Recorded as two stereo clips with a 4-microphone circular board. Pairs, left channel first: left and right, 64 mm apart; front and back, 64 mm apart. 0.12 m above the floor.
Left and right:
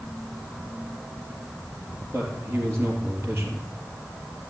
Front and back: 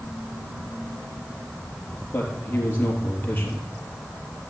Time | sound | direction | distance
2.1 | a man speaking | 55° right | 3.5 m